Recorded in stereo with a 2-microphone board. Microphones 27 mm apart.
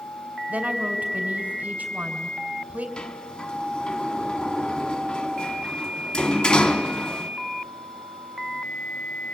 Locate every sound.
0.5 s a woman speaking: 60° right (ahead or behind), 2.5 m
3.0 s a sliding door: 35° left (ahead or behind), 1.0 m